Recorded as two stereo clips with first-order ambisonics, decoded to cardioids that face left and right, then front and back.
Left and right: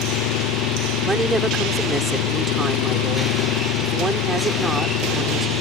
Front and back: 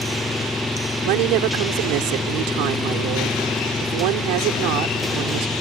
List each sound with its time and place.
0.0 s an engine running: 80° left
1.0 s a woman speaking: 170° right